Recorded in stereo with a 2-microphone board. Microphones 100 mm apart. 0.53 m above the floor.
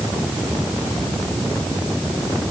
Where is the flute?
I don't hear a flute.